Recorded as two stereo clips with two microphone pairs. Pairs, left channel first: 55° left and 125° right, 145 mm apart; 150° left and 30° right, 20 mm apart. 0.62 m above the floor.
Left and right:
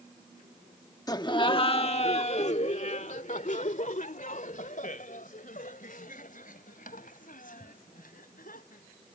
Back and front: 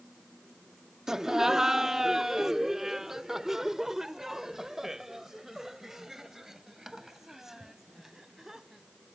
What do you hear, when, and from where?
1.1 s laughter: 15° left; by 8.8 s 45° left